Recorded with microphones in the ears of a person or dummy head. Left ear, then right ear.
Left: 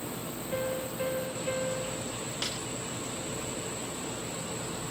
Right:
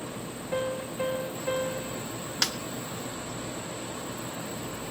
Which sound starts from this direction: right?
A snare drum, at 2.4 s.